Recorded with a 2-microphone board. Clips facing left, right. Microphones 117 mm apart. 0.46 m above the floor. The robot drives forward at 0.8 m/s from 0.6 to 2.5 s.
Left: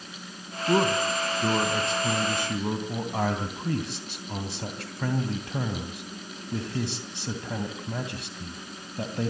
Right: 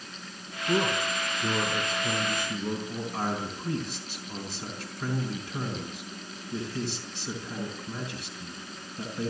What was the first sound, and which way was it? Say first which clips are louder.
A man speaking: left 4 dB; 65° left (ahead or behind).